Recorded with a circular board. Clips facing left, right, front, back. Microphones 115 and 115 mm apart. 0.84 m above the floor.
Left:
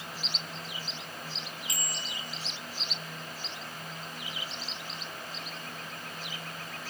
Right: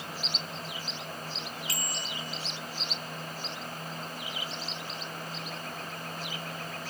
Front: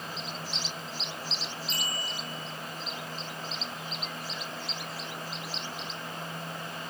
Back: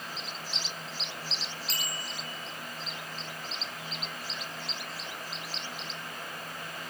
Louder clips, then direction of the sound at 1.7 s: Right 2 dB, front 2 dB; 165° left.